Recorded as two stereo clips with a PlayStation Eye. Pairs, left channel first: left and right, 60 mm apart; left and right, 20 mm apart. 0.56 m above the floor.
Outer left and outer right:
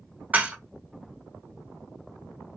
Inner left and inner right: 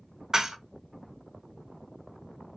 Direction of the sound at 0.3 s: 30° right (ahead or behind).